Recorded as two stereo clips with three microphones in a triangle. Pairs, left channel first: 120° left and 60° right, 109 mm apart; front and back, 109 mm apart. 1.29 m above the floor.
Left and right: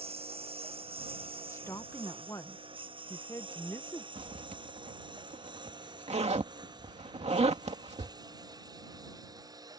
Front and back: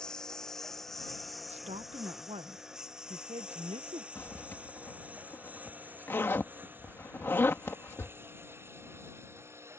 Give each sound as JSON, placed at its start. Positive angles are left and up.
{"t": 0.0, "sound": "a lawn mower", "azimuth_deg": -85}
{"t": 1.5, "sound": "a woman speaking", "azimuth_deg": -175}
{"t": 4.2, "sound": "a zipper", "azimuth_deg": -70}